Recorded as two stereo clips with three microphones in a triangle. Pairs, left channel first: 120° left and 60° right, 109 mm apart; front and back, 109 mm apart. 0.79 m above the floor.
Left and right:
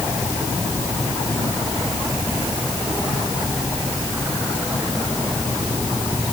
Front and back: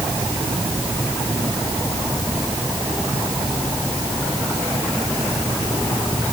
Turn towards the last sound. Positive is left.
No sound to turn to.